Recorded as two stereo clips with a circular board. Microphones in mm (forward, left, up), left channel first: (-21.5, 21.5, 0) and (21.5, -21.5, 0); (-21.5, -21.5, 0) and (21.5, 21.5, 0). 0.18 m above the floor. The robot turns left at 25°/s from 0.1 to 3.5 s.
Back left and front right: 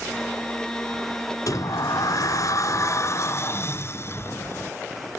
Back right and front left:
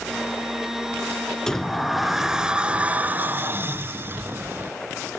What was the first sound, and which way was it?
A sliding door, 145° left.